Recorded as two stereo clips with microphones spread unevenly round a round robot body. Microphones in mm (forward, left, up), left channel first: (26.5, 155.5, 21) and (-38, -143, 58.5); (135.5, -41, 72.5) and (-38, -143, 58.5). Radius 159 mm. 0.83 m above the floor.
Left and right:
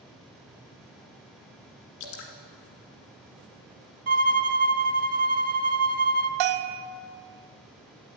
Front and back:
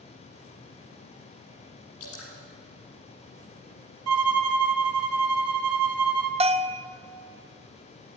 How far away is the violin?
About 0.7 m.